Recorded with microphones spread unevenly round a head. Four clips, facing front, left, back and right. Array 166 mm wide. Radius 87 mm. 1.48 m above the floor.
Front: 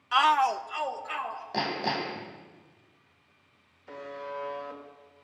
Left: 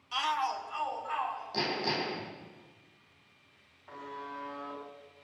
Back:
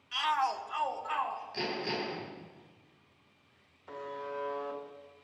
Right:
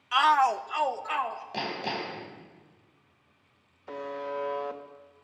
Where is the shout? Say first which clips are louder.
Right 10 dB, front 8 dB; 20° right, 0.7 m; by 1.4 s 85° right, 2 m.